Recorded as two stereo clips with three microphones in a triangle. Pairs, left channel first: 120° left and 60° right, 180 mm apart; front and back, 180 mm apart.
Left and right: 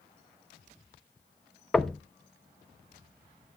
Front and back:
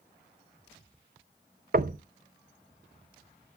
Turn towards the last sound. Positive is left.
turn(degrees=-155)